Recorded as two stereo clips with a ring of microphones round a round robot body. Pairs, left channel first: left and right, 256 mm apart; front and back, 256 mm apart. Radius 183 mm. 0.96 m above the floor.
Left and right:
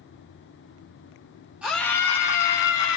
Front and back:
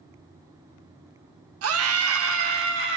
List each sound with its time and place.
1.6 s a scream: 175° right, 1.4 m; by 3.0 s 130° left, 1.6 m